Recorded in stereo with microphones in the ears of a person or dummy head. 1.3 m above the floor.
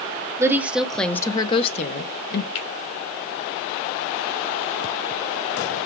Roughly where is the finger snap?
Left.